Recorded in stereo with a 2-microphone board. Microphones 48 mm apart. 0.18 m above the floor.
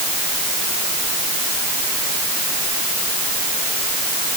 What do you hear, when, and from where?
Only background noise.